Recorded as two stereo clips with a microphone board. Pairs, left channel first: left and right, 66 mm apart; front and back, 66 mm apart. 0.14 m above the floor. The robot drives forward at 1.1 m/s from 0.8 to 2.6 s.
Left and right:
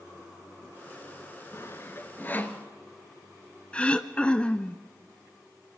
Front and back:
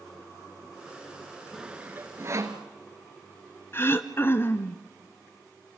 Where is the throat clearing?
25° left, 0.8 m.